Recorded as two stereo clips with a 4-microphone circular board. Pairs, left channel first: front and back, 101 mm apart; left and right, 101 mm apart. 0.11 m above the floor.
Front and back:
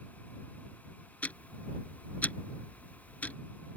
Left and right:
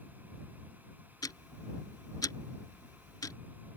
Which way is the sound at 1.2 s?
65° left.